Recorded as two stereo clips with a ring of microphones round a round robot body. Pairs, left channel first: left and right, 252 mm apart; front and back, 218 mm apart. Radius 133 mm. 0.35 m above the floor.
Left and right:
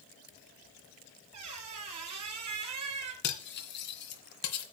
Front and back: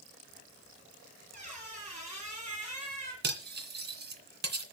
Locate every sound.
1.3 s a squeak: 115° right, 3.5 m
3.2 s cutlery clinking: 140° left, 2 m